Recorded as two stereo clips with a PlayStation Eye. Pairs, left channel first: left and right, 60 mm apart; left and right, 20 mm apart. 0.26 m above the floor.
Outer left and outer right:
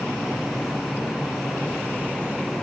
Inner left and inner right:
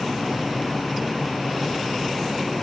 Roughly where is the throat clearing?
I don't hear throat clearing.